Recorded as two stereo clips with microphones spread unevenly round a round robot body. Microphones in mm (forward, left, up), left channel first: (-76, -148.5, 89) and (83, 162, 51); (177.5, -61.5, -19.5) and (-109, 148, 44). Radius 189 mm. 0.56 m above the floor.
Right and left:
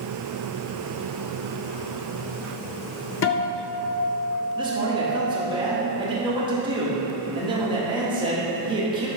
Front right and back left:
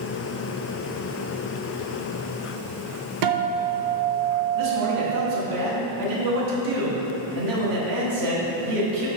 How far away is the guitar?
About 0.6 m.